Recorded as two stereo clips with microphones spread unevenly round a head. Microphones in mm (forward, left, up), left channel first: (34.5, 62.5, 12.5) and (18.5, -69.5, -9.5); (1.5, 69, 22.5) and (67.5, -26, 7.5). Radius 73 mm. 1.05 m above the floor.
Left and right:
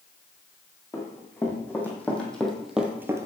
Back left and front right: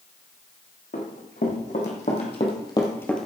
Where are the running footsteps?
155° left, 3.5 m; by 3.2 s 160° right, 1.1 m.